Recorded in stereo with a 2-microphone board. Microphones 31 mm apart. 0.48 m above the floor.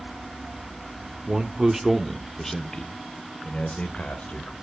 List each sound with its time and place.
1.3 s a man speaking: 30° right (ahead or behind), 0.8 m; by 4.5 s 45° left (ahead or behind), 1.6 m